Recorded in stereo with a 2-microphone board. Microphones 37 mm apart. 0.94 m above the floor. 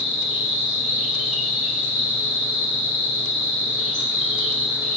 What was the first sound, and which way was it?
An insect, 25° right (ahead or behind).